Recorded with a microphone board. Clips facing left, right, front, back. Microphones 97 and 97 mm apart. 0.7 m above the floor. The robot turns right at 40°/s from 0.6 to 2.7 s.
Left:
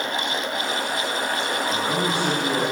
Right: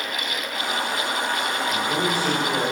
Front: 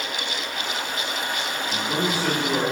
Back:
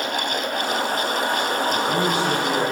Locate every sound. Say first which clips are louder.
1.7 s a man speaking: even, back 1 dB; 90° left, 4.5 m; by 2.6 s 130° left, 4.5 m